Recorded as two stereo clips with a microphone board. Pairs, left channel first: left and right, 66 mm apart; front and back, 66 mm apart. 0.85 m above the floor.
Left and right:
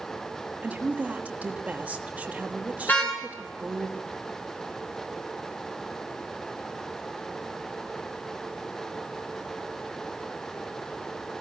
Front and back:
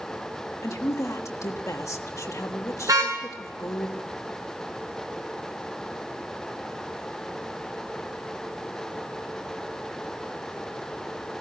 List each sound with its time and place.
0.6 s a woman speaking: 25° right, 1.5 m
2.9 s a car horn: 155° left, 6 m